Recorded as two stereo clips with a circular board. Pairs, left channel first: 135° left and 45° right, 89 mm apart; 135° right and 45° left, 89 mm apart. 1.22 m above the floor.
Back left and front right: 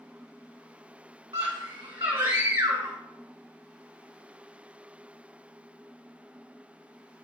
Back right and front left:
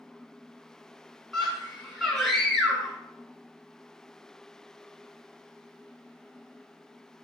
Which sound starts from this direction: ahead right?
A scream, at 1.3 s.